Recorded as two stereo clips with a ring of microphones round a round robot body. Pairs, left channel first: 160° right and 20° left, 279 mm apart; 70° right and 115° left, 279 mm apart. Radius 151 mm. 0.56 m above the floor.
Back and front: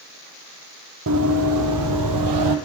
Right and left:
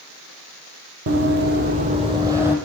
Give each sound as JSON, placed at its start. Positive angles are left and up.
{"t": 1.1, "sound": "running footsteps", "azimuth_deg": 70, "distance_m": 1.3}